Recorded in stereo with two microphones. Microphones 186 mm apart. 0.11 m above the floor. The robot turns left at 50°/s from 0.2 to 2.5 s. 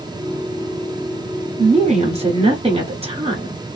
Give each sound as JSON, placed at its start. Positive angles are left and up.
{"t": 1.6, "sound": "a woman speaking", "azimuth_deg": -70, "distance_m": 1.3}